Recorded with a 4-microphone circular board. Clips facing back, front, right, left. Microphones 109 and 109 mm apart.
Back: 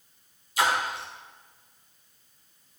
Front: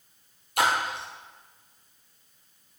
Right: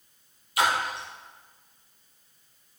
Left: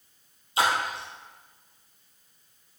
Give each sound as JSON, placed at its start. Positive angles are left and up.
{"t": 0.6, "sound": "a splash", "azimuth_deg": 30, "distance_m": 2.5}